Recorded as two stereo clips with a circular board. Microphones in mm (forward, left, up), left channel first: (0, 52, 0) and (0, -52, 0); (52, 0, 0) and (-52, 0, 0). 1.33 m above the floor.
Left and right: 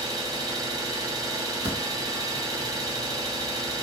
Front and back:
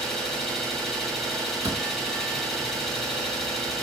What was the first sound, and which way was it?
An engine running, 85° right.